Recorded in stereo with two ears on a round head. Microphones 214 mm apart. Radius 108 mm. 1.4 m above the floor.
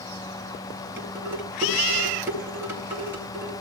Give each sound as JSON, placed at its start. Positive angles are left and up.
{"t": 1.0, "sound": "dishes clattering", "side_deg": -10, "distance_m": 7.5}